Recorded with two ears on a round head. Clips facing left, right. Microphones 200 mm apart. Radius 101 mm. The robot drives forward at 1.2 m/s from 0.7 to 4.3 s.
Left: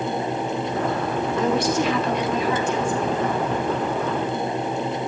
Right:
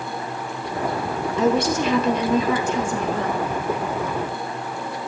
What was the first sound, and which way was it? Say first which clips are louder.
A woman speaking: right 3 dB; 80° right.